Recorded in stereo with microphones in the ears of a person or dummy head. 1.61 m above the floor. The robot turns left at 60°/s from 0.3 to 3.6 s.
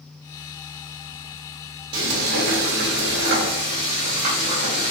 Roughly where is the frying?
Ahead right.